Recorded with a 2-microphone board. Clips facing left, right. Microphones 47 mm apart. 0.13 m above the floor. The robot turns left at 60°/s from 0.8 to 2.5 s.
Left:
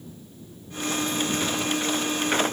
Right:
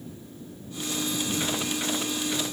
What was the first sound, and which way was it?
Only background noise.